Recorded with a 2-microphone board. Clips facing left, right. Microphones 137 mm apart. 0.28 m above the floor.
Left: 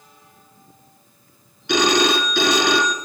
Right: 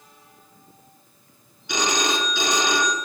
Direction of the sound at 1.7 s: 55° left (ahead or behind).